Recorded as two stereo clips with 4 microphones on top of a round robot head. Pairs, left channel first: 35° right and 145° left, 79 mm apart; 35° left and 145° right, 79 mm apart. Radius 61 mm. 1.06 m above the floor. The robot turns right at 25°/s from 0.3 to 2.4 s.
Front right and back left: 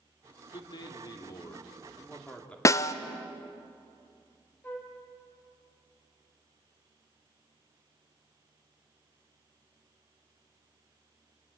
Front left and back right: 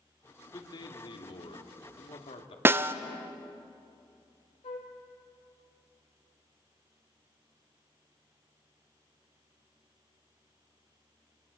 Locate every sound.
0.5 s a man speaking: 5° right, 2.5 m; by 2.5 s 40° left, 2.5 m
2.6 s a snare drum: 85° right, 0.6 m
4.6 s a flute: 35° left, 2.5 m